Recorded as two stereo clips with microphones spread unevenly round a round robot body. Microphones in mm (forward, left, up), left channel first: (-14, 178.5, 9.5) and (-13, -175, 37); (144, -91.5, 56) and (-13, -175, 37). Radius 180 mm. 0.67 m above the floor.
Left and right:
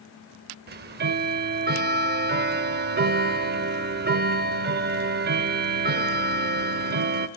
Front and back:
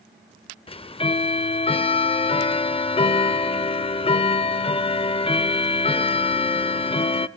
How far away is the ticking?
About 0.6 m.